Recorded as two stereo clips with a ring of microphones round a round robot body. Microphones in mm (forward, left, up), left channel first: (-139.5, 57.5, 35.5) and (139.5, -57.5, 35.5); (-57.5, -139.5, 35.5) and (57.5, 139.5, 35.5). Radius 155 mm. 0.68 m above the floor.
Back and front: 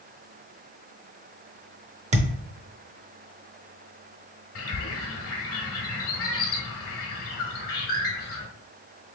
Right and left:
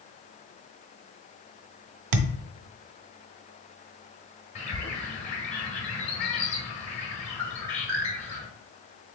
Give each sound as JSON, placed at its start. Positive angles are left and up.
{"t": 2.1, "sound": "a thud", "azimuth_deg": 45, "distance_m": 0.6}
{"t": 4.5, "sound": "a bird", "azimuth_deg": -175, "distance_m": 1.6}